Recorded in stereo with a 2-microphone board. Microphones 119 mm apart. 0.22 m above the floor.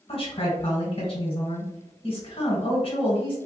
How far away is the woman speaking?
About 1.4 m.